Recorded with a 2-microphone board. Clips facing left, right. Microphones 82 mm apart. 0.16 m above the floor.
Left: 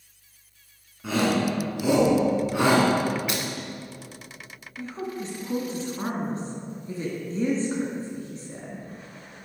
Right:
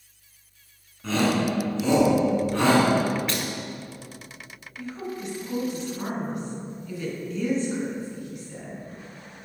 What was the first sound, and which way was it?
A shout, 10° left (ahead or behind).